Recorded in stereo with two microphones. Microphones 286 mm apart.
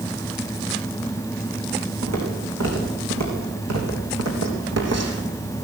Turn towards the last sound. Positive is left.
turn(degrees=-60)  # may be behind; listen again after turning